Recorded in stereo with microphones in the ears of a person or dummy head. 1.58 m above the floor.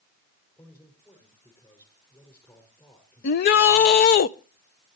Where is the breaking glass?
No breaking glass in this recording.